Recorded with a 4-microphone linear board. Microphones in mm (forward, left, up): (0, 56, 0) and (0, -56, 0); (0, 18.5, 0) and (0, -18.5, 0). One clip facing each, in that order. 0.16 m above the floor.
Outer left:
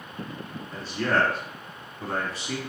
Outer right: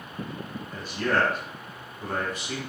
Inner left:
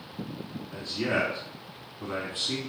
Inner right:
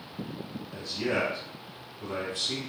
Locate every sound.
0.7 s a man speaking: 35° left (ahead or behind), 2.0 m